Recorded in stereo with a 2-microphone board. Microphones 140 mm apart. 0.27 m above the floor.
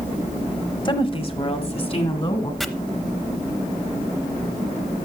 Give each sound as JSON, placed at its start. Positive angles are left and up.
{"t": 0.8, "sound": "a woman speaking", "side_deg": 35, "distance_m": 1.0}
{"t": 2.6, "sound": "chopping", "side_deg": 0, "distance_m": 0.6}